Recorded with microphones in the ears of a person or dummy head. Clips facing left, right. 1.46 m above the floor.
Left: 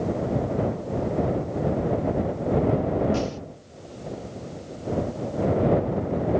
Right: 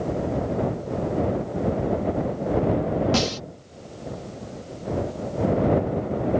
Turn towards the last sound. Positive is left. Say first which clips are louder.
# right 2 dB
turn(degrees=-85)